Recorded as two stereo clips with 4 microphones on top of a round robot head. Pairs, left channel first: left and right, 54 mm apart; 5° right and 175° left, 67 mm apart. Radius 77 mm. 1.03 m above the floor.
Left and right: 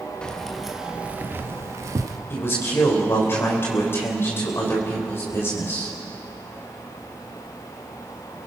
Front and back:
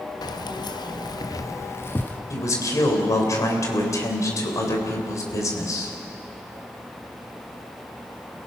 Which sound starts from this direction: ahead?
Keys jangling, at 0.2 s.